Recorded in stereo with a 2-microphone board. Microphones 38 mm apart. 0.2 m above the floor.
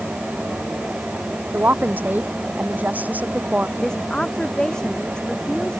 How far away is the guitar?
I don't hear a guitar.